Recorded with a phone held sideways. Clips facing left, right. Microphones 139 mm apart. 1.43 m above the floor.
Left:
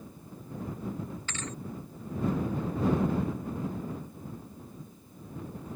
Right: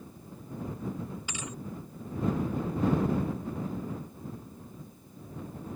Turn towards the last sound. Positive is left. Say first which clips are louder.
# left 1 dB
turn(degrees=-10)  # may be behind; listen again after turning